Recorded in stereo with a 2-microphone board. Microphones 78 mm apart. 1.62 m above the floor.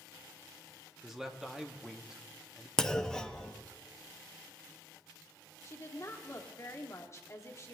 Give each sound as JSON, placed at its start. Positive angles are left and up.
{"t": 1.0, "sound": "a man speaking", "side_deg": -5, "distance_m": 1.0}
{"t": 2.8, "sound": "a clunk", "side_deg": 10, "distance_m": 0.6}
{"t": 5.6, "sound": "a woman speaking", "side_deg": 40, "distance_m": 1.3}